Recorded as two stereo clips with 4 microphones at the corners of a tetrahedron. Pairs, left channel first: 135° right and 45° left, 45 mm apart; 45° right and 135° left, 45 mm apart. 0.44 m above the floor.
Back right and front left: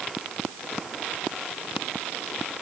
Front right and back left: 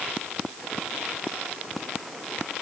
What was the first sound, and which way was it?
Only background noise.